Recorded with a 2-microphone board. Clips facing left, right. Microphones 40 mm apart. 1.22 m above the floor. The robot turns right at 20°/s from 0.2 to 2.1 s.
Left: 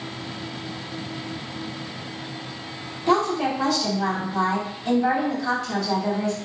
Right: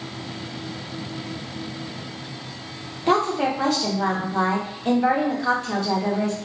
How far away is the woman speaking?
About 0.7 m.